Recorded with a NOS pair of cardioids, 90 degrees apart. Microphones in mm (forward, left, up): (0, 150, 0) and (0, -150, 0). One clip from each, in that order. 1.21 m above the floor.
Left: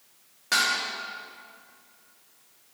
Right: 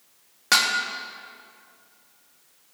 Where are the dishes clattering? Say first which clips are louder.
Right 3 dB; 50° right, 1.4 m.